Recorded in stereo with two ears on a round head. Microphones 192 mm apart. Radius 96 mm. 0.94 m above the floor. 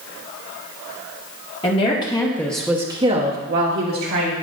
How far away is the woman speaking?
About 2 m.